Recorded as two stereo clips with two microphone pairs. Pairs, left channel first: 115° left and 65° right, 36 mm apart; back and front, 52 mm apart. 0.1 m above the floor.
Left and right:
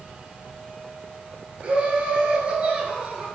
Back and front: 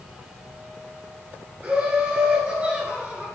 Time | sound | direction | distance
1.6 | laughter | 45° right | 1.5 m